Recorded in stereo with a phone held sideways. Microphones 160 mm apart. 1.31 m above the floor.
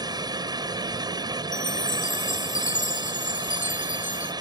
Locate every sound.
0.0 s a fan: 25° right (ahead or behind)
1.5 s a chime: 55° left (ahead or behind)